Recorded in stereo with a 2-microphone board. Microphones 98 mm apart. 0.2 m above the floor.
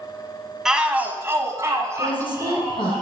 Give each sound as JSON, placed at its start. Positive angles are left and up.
{"t": 0.7, "sound": "a shout", "side_deg": -5, "distance_m": 1.3}
{"t": 2.0, "sound": "a woman speaking", "side_deg": 55, "distance_m": 4.5}